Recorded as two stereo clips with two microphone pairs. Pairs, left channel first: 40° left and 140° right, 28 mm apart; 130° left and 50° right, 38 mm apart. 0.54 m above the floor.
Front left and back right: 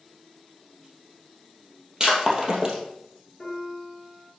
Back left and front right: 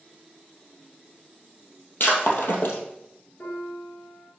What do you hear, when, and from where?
2.0 s breaking glass: 155° left, 2.5 m
3.4 s a piano: 115° left, 3.5 m